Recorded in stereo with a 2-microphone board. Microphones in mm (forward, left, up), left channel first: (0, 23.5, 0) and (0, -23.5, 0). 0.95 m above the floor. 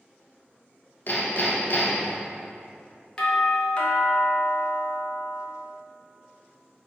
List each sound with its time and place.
1.1 s hammering: 45° left (ahead or behind), 0.6 m
3.2 s a doorbell: 25° left (ahead or behind), 0.6 m